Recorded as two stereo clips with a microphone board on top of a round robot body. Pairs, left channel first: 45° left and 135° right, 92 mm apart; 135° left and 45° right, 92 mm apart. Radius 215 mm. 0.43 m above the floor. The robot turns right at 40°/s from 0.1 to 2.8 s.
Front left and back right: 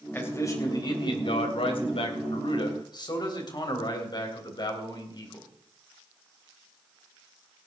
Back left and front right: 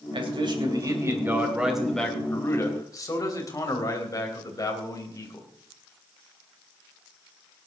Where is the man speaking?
25° right, 3.5 m; by 5.5 s 85° left, 3.5 m.